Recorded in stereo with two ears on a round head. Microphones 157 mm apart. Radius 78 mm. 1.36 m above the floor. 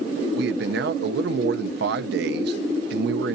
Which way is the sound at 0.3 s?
65° right (ahead or behind).